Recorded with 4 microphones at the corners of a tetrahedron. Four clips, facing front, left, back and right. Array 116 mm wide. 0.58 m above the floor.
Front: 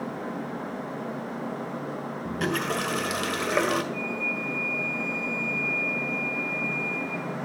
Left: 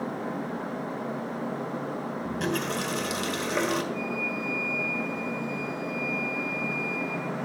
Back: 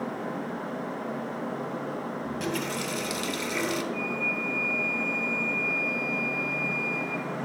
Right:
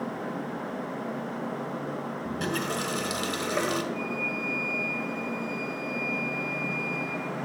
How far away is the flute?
About 4.5 m.